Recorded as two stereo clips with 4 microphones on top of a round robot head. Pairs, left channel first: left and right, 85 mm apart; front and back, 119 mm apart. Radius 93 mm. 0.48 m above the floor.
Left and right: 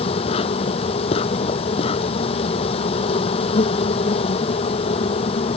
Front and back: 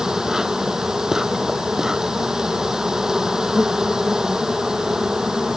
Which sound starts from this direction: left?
An insect, at 0.0 s.